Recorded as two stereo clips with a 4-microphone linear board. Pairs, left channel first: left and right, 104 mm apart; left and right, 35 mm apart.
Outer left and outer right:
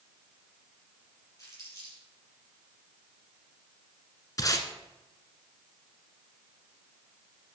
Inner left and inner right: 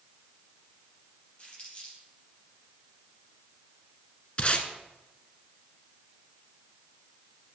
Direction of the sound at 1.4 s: 30° left (ahead or behind).